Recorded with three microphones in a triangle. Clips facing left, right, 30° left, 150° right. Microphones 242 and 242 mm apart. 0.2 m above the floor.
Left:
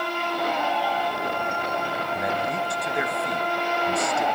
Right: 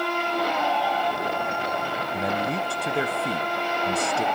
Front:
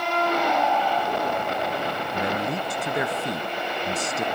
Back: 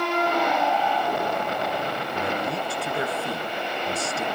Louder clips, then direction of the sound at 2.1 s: Right 2 dB, front 1 dB; 40° right.